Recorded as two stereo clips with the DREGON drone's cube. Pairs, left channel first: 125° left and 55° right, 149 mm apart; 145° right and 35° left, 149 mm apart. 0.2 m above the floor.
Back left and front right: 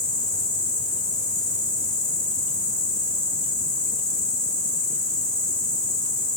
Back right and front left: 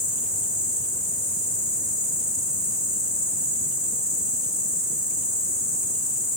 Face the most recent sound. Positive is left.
turn(degrees=60)